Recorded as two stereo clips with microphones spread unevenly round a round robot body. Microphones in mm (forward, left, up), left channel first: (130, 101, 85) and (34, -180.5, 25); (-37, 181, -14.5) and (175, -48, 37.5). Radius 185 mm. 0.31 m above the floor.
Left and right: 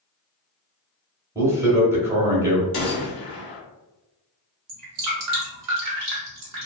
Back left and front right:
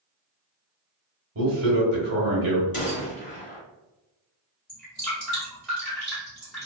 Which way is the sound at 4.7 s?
140° right.